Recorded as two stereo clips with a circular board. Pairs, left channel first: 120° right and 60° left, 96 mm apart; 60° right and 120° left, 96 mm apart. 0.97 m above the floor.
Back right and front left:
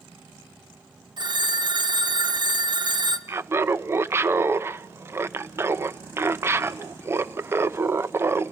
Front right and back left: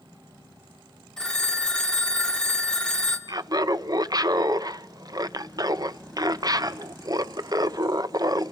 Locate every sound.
1.2 s a phone ringing: 25° left, 1.2 m
3.3 s laughter: 110° left, 0.6 m